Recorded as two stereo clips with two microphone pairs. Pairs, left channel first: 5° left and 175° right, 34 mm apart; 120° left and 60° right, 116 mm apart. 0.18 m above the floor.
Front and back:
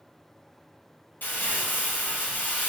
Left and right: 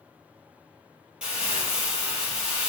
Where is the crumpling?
25° left, 1.6 m.